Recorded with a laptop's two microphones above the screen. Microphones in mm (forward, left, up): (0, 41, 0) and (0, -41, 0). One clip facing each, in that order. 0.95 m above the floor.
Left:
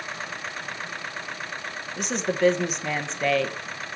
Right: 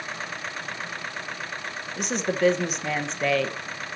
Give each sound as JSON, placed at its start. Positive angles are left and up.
{"t": 2.0, "sound": "a woman speaking", "side_deg": 0, "distance_m": 0.7}